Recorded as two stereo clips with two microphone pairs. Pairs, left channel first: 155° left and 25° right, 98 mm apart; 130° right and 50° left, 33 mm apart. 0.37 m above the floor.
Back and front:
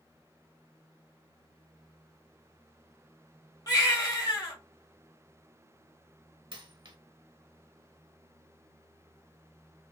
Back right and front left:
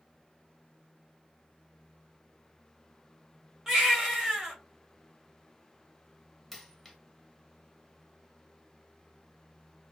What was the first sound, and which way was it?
A baby crying, 120° left.